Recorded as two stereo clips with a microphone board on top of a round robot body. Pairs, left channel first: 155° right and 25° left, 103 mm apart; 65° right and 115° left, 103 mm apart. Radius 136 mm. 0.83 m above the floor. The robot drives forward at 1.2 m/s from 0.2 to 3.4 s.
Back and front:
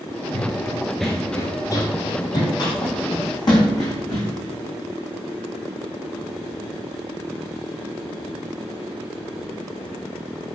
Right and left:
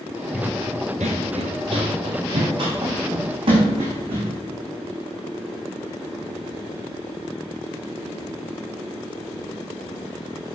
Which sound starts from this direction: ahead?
Running footsteps, at 0.3 s.